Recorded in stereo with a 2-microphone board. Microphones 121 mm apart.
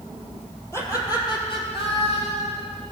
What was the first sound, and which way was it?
Laughter, 20° left (ahead or behind).